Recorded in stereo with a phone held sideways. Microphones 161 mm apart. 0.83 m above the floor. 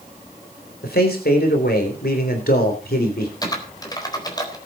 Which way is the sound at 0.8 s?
75° left (ahead or behind).